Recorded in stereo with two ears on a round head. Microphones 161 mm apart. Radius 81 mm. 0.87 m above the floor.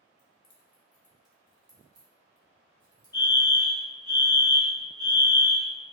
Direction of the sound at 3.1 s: 20° left (ahead or behind).